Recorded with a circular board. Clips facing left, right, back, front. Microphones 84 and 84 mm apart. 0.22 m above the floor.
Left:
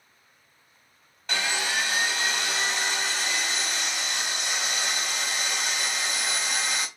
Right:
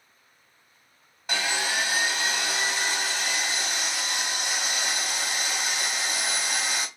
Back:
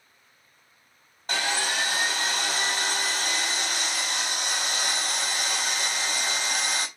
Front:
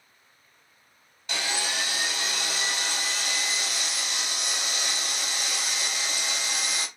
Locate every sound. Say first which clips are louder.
1.3 s sawing: even, back 3 dB; 165° right, 0.9 m